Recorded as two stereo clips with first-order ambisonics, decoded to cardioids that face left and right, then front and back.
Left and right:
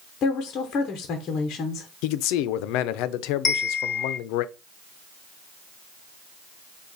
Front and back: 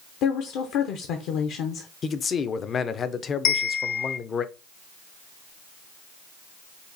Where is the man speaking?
65° left, 0.5 m.